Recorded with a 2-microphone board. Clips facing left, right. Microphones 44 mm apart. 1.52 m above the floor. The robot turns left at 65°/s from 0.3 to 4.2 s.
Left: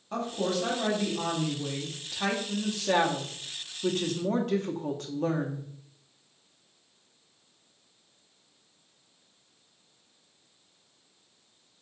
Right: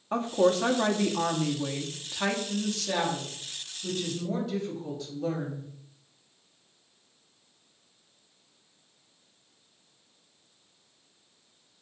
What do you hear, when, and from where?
0.1 s a woman speaking: 40° right, 0.8 m; by 5.7 s 70° left, 0.8 m